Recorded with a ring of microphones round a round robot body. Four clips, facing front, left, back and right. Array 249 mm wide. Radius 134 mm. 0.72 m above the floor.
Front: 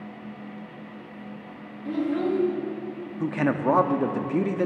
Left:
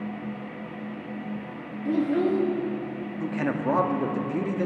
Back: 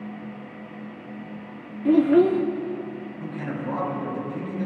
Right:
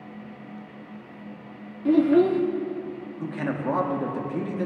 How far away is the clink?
I don't hear a clink.